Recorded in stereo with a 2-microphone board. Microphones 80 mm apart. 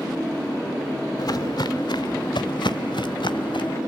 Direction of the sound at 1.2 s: 60° left (ahead or behind).